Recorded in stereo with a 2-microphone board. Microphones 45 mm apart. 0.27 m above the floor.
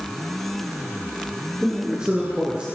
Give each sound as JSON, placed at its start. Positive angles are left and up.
{"t": 1.6, "sound": "a man speaking", "side_deg": -15, "distance_m": 3.5}